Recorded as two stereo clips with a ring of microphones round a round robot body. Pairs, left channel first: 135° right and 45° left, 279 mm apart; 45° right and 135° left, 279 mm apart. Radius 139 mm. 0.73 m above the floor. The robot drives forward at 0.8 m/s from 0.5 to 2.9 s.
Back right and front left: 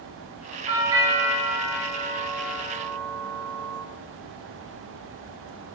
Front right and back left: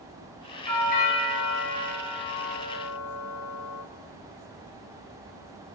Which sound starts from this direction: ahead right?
A doorbell, at 0.7 s.